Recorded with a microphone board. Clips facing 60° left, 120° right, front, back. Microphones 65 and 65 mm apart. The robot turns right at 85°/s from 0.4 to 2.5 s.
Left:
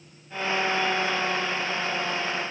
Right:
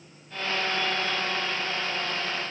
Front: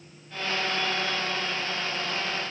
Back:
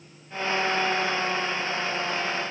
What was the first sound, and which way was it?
Only background noise.